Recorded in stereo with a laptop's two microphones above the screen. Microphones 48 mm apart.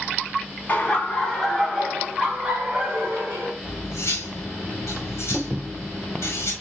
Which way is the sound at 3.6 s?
75° left (ahead or behind).